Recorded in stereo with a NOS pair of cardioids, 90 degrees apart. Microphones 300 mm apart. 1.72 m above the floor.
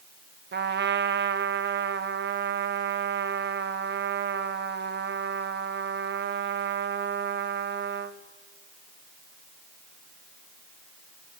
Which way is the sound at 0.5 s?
35° right.